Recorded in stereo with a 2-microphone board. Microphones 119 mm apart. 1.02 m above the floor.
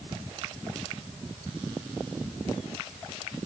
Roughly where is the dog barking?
I don't hear a dog barking.